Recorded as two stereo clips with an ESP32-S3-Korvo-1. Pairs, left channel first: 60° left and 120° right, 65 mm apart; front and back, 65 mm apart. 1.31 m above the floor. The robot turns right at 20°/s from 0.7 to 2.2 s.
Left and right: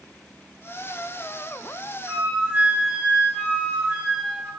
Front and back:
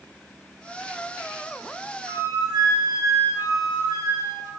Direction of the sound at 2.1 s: 170° left.